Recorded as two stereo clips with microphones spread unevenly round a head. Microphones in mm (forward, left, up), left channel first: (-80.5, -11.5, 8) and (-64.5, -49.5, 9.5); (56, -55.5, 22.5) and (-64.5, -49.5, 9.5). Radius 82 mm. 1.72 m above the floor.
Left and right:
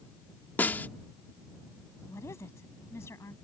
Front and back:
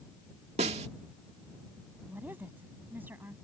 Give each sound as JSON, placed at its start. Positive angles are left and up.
{"t": 0.6, "sound": "a snare drum", "azimuth_deg": 135}
{"t": 2.1, "sound": "a woman speaking", "azimuth_deg": 95}